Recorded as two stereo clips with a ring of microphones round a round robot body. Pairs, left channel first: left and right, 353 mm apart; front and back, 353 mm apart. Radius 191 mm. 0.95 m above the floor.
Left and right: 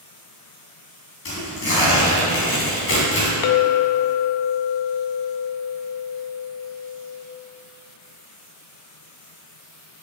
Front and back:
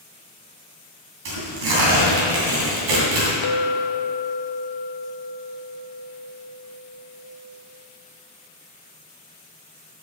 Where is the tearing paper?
150° left, 3 m.